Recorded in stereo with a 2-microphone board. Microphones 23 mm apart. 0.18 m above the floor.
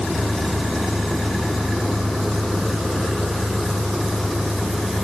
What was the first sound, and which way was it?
Only background noise.